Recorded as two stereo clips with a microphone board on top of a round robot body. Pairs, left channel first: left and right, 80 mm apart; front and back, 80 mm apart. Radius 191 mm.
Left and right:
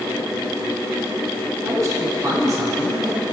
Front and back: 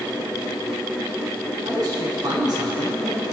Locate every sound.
1.6 s a man speaking: 145° right, 5 m